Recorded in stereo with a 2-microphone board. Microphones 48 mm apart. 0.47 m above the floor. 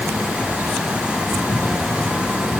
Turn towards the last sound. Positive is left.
No sound to turn to.